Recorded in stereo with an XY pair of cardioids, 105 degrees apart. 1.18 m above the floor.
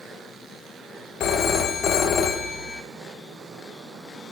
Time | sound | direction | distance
1.2 | a phone ringing | 60° left | 1.0 m